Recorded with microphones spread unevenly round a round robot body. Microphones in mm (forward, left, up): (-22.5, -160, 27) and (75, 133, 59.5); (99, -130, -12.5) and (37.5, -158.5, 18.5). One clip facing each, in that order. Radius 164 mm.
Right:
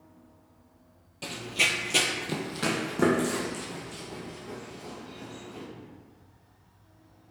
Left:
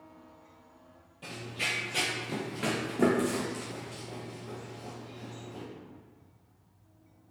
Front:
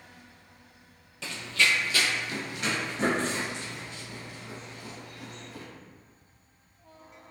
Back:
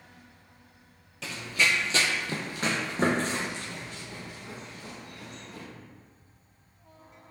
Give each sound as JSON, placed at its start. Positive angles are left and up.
{"t": 1.2, "sound": "running footsteps", "azimuth_deg": -80, "distance_m": 0.6}